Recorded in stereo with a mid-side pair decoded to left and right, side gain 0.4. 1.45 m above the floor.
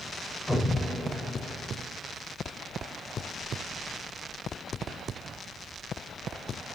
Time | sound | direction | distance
0.5 | an explosion | 10° left | 4.5 m